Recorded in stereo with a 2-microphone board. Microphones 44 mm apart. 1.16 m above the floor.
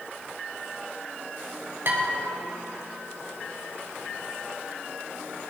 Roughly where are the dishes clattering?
Right.